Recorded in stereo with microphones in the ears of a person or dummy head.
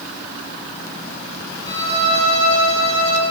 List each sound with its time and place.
1.6 s a violin: 35° left (ahead or behind), 3 m